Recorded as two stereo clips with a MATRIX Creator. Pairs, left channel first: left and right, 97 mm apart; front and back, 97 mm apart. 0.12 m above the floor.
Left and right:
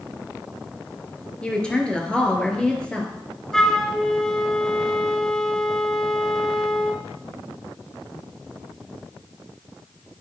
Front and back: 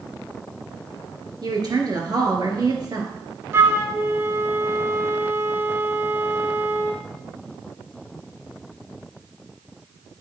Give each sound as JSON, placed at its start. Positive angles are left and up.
{"t": 1.4, "sound": "a woman speaking", "azimuth_deg": 165, "distance_m": 2.5}
{"t": 3.5, "sound": "a flute", "azimuth_deg": 170, "distance_m": 1.0}